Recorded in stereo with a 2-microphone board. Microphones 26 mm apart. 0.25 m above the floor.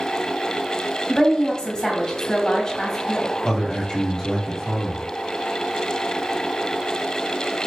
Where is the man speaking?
25° left (ahead or behind), 1.2 m.